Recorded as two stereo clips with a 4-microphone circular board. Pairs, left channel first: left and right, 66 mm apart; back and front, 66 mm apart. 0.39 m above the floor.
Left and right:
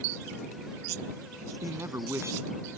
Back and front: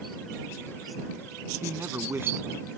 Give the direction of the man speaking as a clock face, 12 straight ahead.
2 o'clock.